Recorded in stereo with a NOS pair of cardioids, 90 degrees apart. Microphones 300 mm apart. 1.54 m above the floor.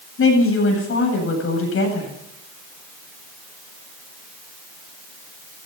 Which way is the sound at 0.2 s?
45° left.